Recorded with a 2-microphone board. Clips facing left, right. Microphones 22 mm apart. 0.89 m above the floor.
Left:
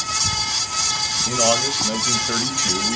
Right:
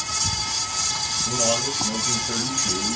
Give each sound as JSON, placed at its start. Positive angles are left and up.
{"t": 1.3, "sound": "a man speaking", "side_deg": 45, "distance_m": 1.1}